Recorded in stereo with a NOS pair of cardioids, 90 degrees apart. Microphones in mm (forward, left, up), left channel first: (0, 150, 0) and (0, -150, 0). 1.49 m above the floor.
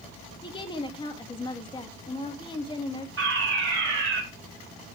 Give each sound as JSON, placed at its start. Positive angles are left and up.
{"t": 0.4, "sound": "a woman speaking", "azimuth_deg": 15, "distance_m": 2.5}
{"t": 3.2, "sound": "a fire alarm", "azimuth_deg": -45, "distance_m": 7.0}